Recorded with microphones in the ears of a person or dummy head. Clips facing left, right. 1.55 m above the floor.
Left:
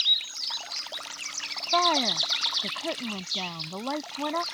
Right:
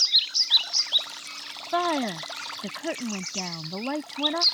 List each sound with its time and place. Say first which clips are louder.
1.7 s a woman speaking: right 1 dB; 5° right (ahead or behind)